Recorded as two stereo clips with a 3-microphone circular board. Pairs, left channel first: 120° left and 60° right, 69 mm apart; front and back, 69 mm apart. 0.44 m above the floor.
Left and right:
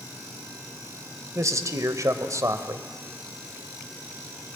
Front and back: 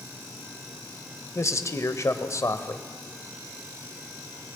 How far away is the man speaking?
About 1.7 m.